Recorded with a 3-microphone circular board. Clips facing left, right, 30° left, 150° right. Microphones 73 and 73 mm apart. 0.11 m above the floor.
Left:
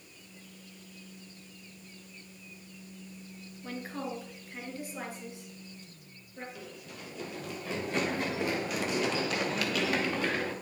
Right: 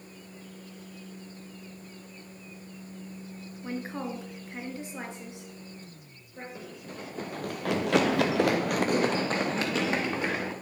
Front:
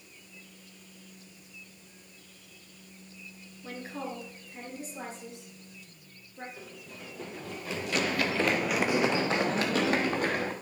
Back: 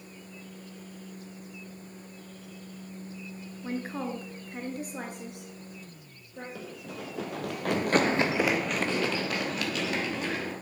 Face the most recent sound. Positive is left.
turn(degrees=-20)